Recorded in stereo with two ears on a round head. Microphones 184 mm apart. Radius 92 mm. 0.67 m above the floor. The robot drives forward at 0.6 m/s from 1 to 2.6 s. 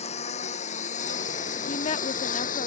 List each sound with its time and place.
0.0 s a lawn mower: 35° left (ahead or behind); by 2.7 s 40° left (ahead or behind)
1.7 s a woman speaking: 35° left (ahead or behind); by 2.7 s 30° left (ahead or behind)